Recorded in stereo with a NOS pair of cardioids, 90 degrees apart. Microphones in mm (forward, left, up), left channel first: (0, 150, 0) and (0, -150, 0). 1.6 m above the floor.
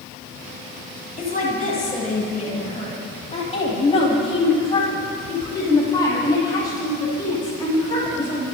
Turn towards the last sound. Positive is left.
turn(degrees=10)